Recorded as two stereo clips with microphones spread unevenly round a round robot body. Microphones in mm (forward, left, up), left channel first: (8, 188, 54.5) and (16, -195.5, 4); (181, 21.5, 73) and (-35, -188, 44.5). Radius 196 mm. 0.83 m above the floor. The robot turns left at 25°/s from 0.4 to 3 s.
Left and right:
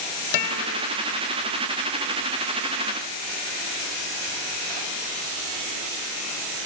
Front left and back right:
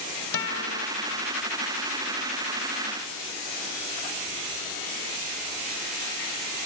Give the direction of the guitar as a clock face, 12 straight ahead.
9 o'clock.